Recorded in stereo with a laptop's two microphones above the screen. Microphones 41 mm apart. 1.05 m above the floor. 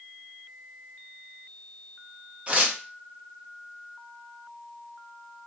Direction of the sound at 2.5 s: 30° right (ahead or behind).